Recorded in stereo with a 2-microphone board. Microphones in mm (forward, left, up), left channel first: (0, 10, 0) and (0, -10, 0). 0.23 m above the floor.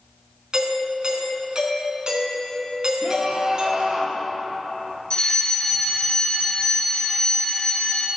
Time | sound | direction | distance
0.5 | a doorbell | 40° right (ahead or behind) | 3.5 m
3.0 | a scream | 45° right (ahead or behind) | 4.5 m
5.1 | a fire alarm | 55° left (ahead or behind) | 3.5 m